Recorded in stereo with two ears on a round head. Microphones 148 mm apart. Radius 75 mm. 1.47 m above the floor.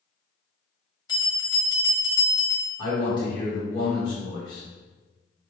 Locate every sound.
1.1 s a bell: 20° left (ahead or behind), 1.5 m
2.8 s a man speaking: 30° left (ahead or behind), 1.6 m